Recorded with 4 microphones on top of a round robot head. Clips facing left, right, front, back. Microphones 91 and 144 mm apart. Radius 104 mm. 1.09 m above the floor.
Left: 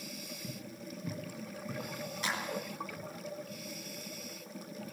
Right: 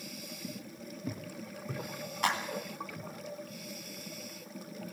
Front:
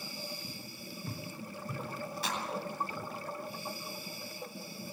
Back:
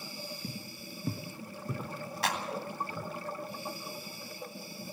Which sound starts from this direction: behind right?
A clap, at 2.2 s.